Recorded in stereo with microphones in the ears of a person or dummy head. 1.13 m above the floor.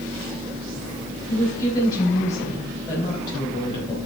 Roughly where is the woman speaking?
Centre.